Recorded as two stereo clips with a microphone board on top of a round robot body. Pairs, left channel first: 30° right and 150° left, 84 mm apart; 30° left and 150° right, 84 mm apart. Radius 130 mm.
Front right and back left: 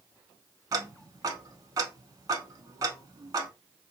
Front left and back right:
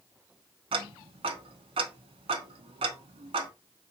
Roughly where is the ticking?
Behind.